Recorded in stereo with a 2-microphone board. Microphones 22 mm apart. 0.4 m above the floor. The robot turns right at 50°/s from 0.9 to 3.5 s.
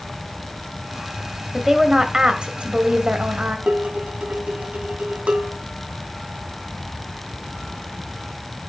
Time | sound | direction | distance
1.5 | a woman speaking | 170° right | 1.8 m
3.7 | dishes clattering | 65° right (ahead or behind) | 2 m